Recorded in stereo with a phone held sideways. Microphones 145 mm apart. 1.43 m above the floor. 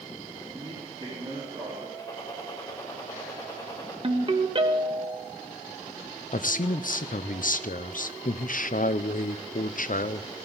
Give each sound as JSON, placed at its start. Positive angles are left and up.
{"t": 0.4, "sound": "a man speaking", "side_deg": -35, "distance_m": 4.0}
{"t": 2.0, "sound": "a gunshot", "side_deg": 25, "distance_m": 3.5}
{"t": 4.0, "sound": "a ringtone", "side_deg": -35, "distance_m": 1.2}
{"t": 6.3, "sound": "a man speaking", "side_deg": 65, "distance_m": 0.5}